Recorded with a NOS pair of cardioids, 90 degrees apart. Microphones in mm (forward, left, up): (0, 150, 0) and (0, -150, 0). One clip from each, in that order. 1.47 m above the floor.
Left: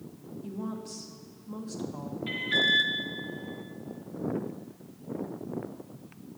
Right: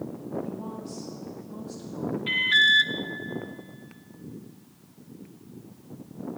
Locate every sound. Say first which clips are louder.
0.4 s a woman speaking: right 2 dB; 35° left, 2.0 m
2.3 s an alarm: right 6 dB; 20° right, 0.5 m